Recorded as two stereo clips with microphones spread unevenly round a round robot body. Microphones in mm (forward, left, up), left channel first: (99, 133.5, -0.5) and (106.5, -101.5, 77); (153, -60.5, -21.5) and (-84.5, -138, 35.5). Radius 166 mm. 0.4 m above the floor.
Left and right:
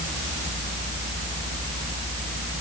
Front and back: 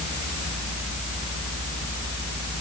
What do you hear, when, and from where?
Only background noise.